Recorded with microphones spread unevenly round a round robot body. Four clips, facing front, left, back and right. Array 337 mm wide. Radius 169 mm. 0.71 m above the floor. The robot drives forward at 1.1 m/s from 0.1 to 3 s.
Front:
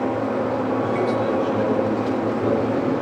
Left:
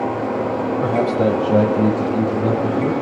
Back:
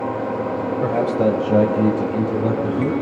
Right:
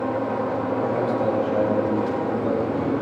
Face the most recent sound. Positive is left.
turn(degrees=145)